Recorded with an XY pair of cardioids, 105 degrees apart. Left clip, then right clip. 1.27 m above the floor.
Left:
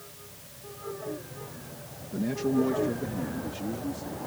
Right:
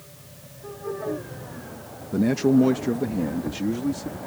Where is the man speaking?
65° right.